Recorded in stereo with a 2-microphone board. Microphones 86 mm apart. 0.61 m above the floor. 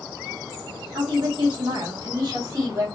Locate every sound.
0.9 s a woman speaking: 60° right (ahead or behind), 2.5 m; by 2.9 s 40° right (ahead or behind), 3 m